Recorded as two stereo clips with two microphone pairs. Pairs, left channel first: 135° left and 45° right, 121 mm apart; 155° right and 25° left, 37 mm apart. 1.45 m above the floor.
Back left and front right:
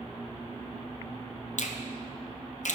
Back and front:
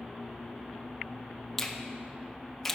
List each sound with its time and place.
1.6 s a finger snap: 120° left, 0.6 m